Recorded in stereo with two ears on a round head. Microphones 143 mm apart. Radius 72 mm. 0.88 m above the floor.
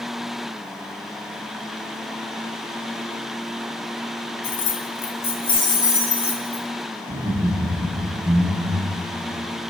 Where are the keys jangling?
60° left (ahead or behind), 0.9 m; by 6.6 s 15° left (ahead or behind), 1.9 m.